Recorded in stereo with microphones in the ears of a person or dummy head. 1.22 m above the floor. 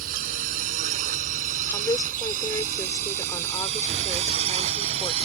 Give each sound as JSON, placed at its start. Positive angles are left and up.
{"t": 0.0, "sound": "a drone", "side_deg": -50}
{"t": 1.7, "sound": "a woman speaking", "side_deg": 25}